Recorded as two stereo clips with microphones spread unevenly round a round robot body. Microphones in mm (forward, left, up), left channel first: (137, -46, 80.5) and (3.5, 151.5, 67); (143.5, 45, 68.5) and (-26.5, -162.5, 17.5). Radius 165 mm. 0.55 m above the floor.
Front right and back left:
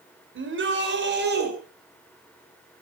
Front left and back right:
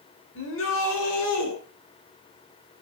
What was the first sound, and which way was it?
A shout, 100° left.